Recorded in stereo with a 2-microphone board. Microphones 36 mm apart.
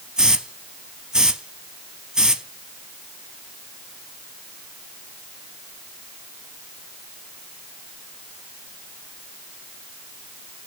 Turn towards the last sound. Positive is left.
turn(degrees=-15)  # may be behind; listen again after turning